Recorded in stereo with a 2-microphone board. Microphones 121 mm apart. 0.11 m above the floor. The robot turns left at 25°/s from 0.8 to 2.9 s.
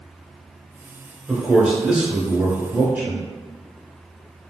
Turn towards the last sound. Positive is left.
turn(degrees=-15)  # may be behind; listen again after turning